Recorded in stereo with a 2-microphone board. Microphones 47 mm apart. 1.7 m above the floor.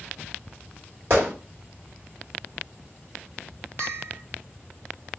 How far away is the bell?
About 1.9 m.